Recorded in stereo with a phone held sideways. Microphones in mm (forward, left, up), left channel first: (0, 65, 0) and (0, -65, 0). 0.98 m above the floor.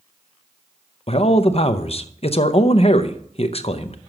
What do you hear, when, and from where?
1.1 s a man speaking: 50° left (ahead or behind), 0.7 m